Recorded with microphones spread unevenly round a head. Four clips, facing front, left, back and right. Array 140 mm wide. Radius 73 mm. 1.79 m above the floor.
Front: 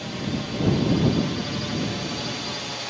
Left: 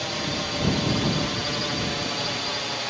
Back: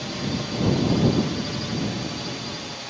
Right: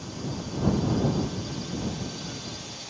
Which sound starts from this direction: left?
A drone, at 0.0 s.